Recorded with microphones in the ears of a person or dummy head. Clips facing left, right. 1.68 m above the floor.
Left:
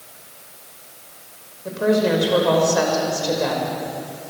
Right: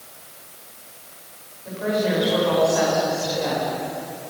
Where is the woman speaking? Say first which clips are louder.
Left 5 dB; 65° left (ahead or behind), 5.5 m.